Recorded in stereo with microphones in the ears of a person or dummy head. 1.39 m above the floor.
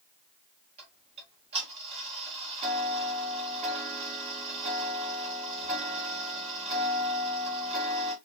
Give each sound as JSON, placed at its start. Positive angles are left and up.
{"t": 0.8, "sound": "ticking", "side_deg": -35, "distance_m": 2.0}